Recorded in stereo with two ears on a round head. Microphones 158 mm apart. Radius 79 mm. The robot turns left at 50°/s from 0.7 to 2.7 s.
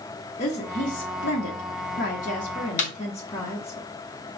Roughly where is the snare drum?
Left.